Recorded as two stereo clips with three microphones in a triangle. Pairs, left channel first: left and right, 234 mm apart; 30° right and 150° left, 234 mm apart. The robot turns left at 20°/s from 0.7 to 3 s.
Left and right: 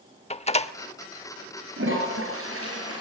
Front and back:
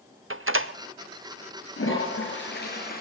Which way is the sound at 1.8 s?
55° right.